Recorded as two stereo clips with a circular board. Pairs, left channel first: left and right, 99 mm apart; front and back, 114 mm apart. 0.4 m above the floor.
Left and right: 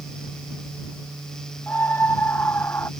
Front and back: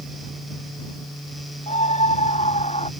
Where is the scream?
20° left; by 2.9 s 25° left.